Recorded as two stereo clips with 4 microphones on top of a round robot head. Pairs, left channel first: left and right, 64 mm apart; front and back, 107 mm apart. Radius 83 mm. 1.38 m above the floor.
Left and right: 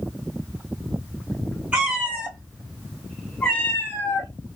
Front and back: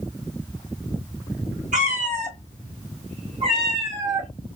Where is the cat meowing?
160° right, 2 m; by 4.3 s 110° left, 1.1 m.